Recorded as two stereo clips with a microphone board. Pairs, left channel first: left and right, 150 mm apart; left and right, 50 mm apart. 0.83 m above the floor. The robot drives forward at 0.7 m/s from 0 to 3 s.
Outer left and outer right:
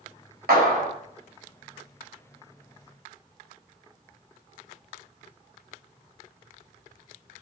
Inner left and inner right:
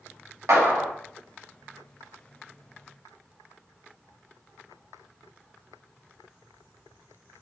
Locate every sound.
0.5 s a clap: 90° right, 4 m; by 0.9 s 85° right, 4 m